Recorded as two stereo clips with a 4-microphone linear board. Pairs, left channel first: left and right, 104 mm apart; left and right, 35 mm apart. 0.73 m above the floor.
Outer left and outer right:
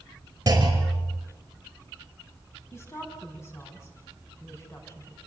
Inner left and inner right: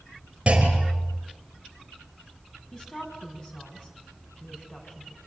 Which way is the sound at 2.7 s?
30° left (ahead or behind).